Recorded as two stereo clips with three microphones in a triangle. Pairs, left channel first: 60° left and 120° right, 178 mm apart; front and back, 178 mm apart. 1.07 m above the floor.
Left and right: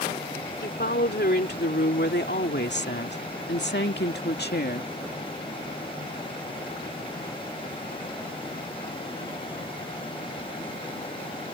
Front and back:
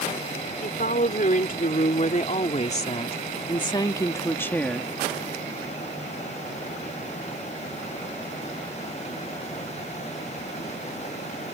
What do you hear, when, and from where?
0.6 s a woman speaking: 35° left; by 4.9 s 85° left